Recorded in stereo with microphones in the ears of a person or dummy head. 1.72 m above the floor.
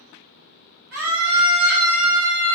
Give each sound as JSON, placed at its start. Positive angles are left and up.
{"t": 0.9, "sound": "a scream", "side_deg": -55, "distance_m": 3.5}